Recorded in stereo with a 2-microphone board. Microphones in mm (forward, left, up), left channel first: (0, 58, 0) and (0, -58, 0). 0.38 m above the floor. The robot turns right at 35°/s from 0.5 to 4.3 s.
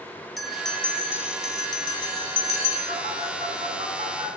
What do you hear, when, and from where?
0.4 s a bell: straight ahead, 1.0 m; by 2.8 s 80° left, 1.0 m
2.9 s a phone buzzing: 75° right (ahead or behind), 1.6 m; by 4.3 s 55° right (ahead or behind), 1.6 m